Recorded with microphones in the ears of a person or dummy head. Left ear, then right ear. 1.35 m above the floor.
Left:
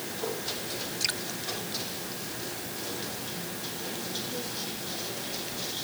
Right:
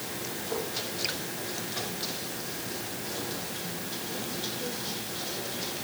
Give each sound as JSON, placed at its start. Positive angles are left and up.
{"t": 1.0, "sound": "dripping", "side_deg": 30}